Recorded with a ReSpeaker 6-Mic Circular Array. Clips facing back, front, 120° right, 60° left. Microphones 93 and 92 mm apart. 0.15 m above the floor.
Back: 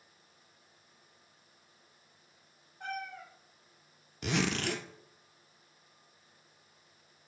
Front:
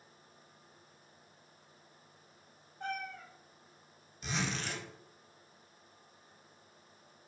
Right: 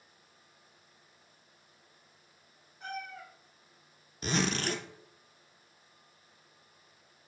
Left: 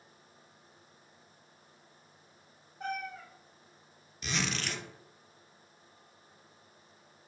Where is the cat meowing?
105° left, 4 m.